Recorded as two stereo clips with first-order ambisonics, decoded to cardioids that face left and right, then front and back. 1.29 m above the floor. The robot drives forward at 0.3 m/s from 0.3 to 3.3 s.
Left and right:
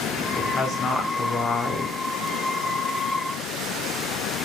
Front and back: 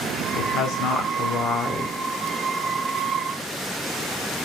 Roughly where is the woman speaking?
Ahead.